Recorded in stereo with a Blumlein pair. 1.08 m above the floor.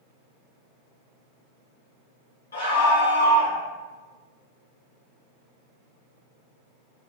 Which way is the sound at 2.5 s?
65° left.